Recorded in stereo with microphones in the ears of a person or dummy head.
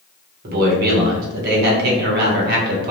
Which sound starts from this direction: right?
A man speaking, at 0.4 s.